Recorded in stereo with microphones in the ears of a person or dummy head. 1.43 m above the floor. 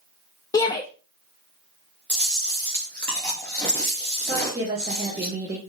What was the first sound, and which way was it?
A shout, 20° left (ahead or behind).